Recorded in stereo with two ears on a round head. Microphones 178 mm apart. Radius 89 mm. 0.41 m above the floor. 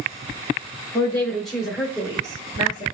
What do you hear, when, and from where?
0.9 s a woman speaking: 15° left (ahead or behind), 1.2 m; by 2.8 s 30° right (ahead or behind), 1.2 m